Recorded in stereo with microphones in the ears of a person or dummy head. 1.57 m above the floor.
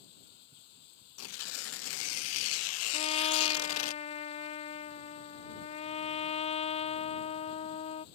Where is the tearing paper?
80° left.